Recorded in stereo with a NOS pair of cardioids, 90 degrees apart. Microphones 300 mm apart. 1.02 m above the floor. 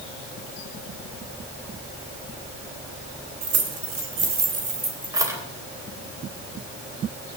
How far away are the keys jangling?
About 3 m.